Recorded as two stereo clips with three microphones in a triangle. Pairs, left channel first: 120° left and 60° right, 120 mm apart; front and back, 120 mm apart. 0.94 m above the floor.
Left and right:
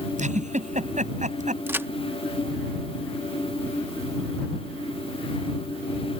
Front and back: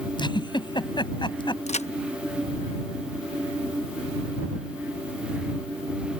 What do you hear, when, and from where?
0.2 s a giggle: 50° right
1.7 s a crack: 10° left